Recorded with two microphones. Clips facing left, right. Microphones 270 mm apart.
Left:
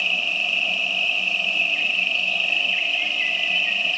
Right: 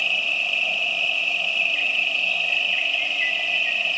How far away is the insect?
About 1.0 m.